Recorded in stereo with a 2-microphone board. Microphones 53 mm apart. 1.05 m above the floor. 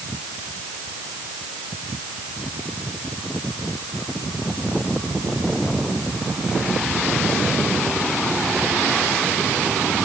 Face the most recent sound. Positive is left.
No sound to turn to.